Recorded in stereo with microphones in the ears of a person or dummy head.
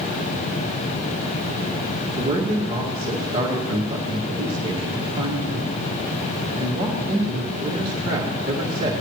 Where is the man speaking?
30° right (ahead or behind), 2 m.